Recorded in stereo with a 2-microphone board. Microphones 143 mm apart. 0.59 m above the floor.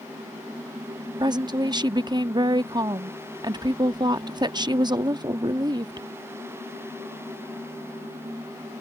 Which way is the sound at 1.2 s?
30° right (ahead or behind).